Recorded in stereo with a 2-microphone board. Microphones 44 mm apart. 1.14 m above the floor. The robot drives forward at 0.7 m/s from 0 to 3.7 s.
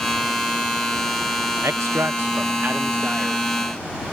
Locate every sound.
1.6 s a man speaking: 80° right; by 3.5 s 30° right (ahead or behind)